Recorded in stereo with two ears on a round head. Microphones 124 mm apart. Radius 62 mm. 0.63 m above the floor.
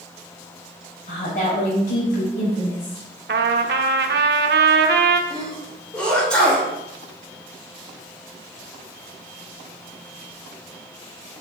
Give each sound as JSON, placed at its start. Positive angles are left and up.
{"t": 1.1, "sound": "a woman speaking", "side_deg": 70, "distance_m": 3.0}
{"t": 3.3, "sound": "a trumpet", "side_deg": -85, "distance_m": 0.6}
{"t": 5.3, "sound": "a sneeze", "side_deg": 10, "distance_m": 2.5}